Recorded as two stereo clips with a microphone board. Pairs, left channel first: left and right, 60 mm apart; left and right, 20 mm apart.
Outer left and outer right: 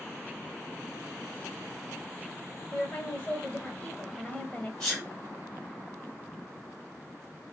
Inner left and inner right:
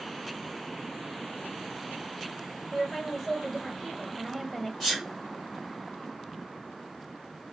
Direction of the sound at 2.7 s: 20° left (ahead or behind).